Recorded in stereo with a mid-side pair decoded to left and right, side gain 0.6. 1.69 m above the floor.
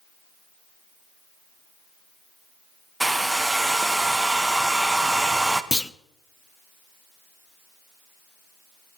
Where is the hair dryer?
10° right, 1.1 m.